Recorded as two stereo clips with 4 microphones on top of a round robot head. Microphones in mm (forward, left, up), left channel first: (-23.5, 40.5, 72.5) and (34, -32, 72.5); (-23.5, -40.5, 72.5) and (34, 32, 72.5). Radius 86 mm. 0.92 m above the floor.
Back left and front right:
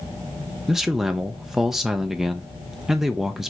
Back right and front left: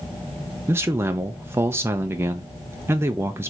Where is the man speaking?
30° left, 0.6 m.